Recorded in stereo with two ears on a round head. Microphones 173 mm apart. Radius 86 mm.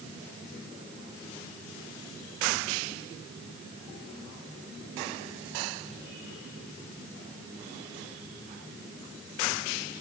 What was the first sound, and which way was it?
Only background noise.